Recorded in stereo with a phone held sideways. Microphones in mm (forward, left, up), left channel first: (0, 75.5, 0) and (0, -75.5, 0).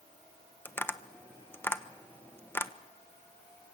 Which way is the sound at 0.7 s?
15° left (ahead or behind).